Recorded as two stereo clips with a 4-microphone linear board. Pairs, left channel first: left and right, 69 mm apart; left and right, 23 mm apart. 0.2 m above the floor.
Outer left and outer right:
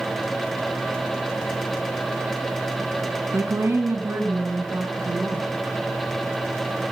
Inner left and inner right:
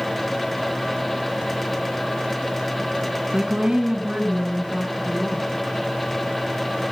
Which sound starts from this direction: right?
A woman speaking, at 3.3 s.